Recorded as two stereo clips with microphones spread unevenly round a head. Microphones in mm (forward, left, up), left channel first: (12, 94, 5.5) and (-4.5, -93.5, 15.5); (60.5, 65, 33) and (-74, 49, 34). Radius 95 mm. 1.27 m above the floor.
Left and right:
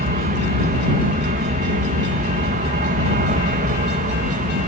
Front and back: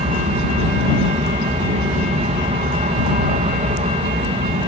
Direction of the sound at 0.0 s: 135° right.